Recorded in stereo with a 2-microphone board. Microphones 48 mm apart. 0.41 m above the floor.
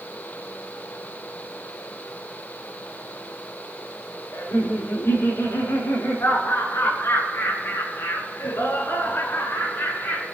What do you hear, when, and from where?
4.3 s laughter: 75° left (ahead or behind), 6 m; by 10.2 s 50° left (ahead or behind), 5.5 m